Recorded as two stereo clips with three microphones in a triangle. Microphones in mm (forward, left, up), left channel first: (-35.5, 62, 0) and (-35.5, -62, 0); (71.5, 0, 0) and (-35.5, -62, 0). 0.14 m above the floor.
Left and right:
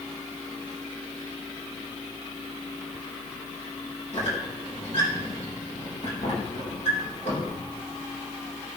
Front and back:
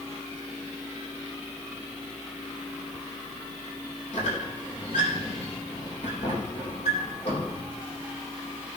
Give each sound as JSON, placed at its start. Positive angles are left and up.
{"t": 4.1, "sound": "a squeak", "azimuth_deg": 60, "distance_m": 4.0}